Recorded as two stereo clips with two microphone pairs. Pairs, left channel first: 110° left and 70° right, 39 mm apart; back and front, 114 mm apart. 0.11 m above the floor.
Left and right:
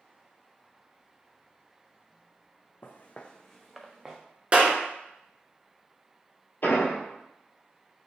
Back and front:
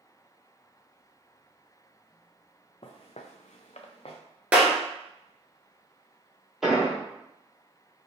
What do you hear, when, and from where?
2.8 s footsteps: 145° left, 0.6 m; by 4.2 s 145° right, 0.9 m
4.5 s a clap: 70° right, 1.2 m
6.6 s an explosion: 85° left, 1.1 m